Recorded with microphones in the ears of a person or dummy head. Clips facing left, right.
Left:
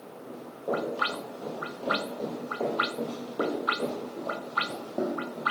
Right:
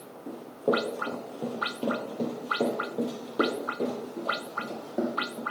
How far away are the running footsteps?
About 1.8 m.